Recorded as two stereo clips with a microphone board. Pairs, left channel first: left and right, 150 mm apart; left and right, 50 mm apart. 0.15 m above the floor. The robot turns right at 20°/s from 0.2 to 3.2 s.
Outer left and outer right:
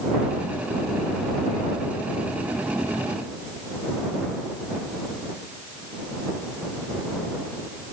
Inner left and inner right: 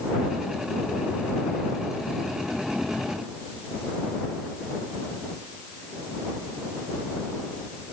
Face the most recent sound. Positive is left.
No sound to turn to.